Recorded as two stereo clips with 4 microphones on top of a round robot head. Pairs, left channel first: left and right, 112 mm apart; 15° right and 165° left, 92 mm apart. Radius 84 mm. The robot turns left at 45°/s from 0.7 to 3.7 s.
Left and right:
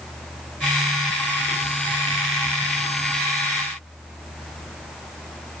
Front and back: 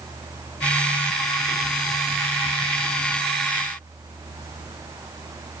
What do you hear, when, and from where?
Only background noise.